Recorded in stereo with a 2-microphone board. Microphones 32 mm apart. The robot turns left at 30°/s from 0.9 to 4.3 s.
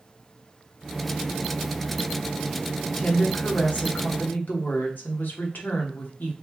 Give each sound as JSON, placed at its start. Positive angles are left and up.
{"t": 2.8, "sound": "a woman speaking", "azimuth_deg": 140, "distance_m": 1.3}